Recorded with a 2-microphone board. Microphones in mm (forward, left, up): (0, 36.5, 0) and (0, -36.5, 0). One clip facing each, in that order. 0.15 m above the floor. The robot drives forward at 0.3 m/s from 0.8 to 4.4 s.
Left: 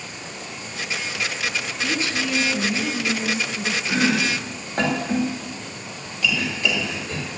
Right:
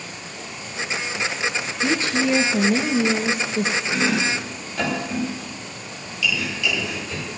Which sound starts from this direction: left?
Chopping, at 3.9 s.